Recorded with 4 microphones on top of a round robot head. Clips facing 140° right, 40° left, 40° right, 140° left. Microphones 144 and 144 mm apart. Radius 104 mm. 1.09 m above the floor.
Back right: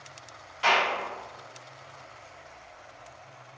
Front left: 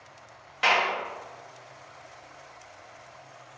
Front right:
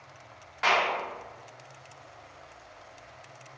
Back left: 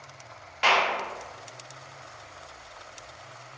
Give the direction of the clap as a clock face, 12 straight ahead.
10 o'clock.